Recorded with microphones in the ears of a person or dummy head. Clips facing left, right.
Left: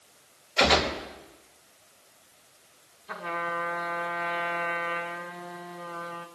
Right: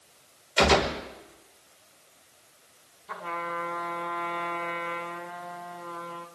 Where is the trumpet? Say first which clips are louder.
Left 1 dB; centre (ahead or behind), 2.5 m.